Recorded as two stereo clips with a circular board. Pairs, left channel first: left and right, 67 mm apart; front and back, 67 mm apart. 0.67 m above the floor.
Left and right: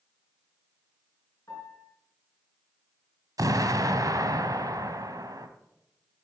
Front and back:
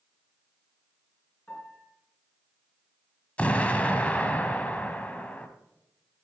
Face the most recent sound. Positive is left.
turn(degrees=-70)